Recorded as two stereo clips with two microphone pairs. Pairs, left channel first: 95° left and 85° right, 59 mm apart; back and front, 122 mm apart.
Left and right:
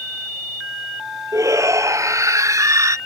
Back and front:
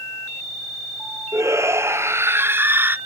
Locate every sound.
1.3 s a shout: 65° right; by 3.0 s 75° right